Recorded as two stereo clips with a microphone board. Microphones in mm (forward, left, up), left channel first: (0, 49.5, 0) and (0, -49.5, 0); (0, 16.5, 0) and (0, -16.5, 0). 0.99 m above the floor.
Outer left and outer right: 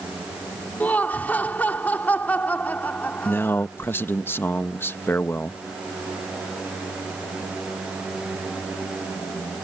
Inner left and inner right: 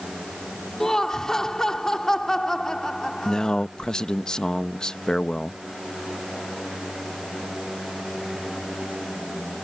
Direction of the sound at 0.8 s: 15° left (ahead or behind).